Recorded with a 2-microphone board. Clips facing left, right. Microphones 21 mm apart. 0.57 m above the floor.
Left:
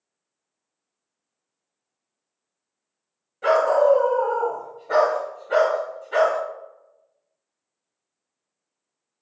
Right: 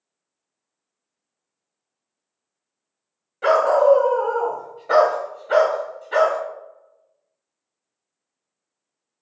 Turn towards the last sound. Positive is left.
turn(degrees=-35)  # may be behind; listen again after turning